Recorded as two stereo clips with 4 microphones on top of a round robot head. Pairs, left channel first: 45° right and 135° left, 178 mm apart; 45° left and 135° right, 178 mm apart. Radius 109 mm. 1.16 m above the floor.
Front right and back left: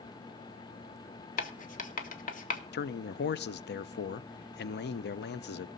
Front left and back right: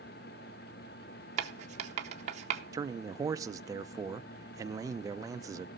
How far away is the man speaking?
About 0.7 m.